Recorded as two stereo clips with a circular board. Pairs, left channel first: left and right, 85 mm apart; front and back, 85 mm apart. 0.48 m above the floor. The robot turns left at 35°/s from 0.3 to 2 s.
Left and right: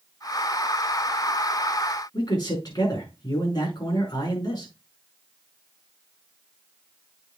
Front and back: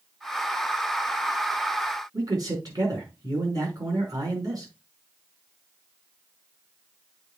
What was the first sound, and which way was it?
A man speaking, 130° left.